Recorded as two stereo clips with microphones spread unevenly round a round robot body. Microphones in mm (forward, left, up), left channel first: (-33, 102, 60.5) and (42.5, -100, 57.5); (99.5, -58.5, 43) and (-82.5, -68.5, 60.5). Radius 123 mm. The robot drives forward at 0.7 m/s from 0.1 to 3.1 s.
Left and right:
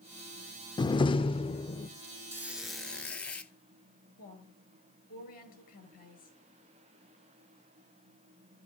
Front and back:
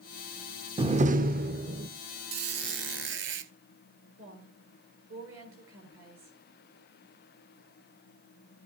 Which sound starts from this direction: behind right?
A squeak, at 2.3 s.